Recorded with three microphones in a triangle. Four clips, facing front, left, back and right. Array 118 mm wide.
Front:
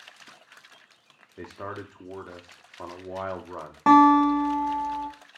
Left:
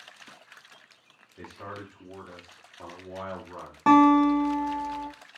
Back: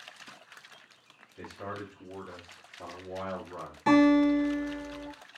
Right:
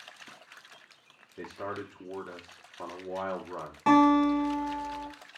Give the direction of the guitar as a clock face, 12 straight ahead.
11 o'clock.